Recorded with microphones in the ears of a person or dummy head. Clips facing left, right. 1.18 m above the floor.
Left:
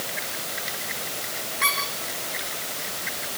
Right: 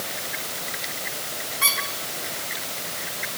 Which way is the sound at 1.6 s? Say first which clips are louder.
Left 3 dB; 5° right (ahead or behind).